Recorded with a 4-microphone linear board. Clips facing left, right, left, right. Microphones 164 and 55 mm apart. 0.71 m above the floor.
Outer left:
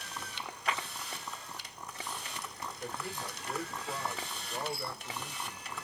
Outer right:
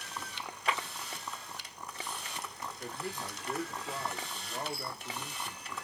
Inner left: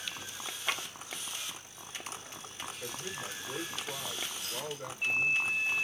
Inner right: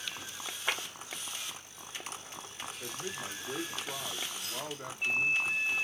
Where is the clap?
25° right (ahead or behind), 2.5 m.